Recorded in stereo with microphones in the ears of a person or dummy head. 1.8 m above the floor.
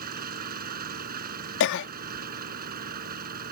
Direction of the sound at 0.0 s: 50° right (ahead or behind).